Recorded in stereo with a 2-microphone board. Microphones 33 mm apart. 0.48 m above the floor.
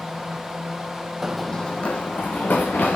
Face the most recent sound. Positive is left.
turn(degrees=70)  # may be behind; listen again after turning